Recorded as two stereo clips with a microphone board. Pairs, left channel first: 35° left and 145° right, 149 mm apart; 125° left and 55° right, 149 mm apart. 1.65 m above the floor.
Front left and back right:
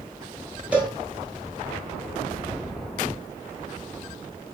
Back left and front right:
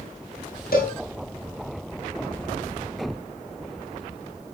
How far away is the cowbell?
About 5.5 m.